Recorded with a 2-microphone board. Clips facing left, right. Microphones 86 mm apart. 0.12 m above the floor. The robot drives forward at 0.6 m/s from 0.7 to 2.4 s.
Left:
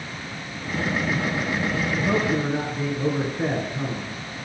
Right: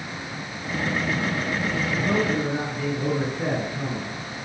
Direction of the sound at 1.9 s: 25° left (ahead or behind).